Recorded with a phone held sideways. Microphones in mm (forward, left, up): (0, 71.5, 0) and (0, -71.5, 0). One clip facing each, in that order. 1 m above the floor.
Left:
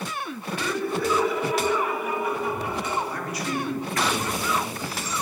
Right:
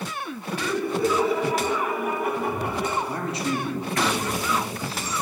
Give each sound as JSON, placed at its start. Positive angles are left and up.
{"t": 0.5, "sound": "laughter", "side_deg": -10, "distance_m": 1.9}
{"t": 3.1, "sound": "a man speaking", "side_deg": -25, "distance_m": 1.8}